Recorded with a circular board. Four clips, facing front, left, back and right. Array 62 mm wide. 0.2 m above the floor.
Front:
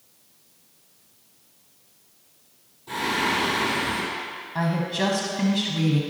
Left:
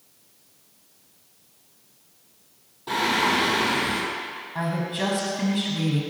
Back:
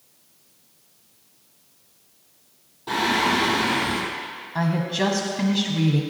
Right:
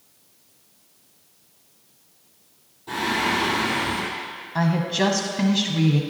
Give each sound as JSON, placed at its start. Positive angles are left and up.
{"t": 2.9, "sound": "singing", "azimuth_deg": 145, "distance_m": 4.0}
{"t": 4.5, "sound": "a woman speaking", "azimuth_deg": -105, "distance_m": 1.0}